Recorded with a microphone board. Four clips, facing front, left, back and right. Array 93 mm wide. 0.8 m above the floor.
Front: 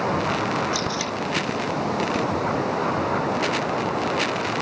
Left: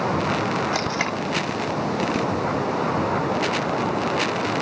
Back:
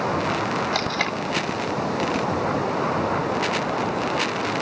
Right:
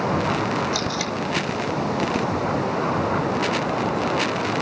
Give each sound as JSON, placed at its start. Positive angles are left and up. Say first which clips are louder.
{"t": 0.7, "sound": "tape being pulled", "louder": "left 1 dB, back 2 dB", "azimuth_deg": 135, "distance_m": 1.3}